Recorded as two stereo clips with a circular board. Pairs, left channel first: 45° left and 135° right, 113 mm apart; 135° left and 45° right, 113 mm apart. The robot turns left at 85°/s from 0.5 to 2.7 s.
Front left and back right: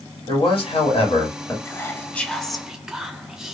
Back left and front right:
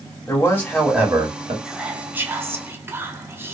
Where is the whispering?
35° left, 0.6 m; by 3.5 s 55° right, 0.6 m.